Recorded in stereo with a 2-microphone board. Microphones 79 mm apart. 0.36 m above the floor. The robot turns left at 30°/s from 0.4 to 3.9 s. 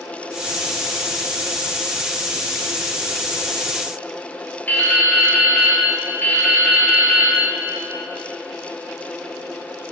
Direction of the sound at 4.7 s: 25° left (ahead or behind).